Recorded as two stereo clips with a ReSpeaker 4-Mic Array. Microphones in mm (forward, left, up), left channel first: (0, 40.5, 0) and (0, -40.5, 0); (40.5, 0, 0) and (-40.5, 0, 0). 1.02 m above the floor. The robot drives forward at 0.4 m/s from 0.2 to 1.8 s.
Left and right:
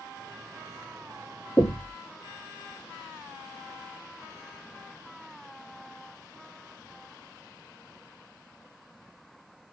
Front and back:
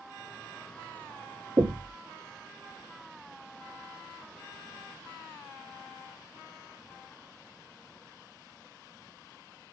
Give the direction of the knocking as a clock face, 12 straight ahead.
7 o'clock.